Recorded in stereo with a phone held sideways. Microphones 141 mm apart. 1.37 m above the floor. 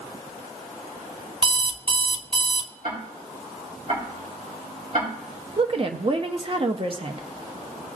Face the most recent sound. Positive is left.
turn(degrees=-40)  # may be behind; listen again after turning